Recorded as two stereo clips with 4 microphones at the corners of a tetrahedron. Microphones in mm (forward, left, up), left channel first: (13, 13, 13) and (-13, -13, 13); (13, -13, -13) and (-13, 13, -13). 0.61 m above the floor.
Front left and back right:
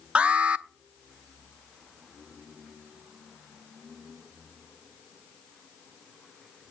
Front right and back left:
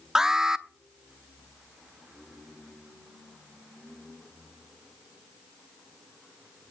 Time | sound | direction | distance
0.1 | an alarm | 160° right | 0.7 m